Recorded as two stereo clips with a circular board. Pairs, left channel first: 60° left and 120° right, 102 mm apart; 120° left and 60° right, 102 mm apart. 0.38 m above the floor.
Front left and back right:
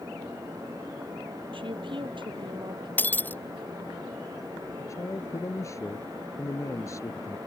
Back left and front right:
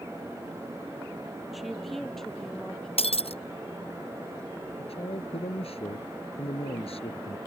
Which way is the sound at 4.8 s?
120° left.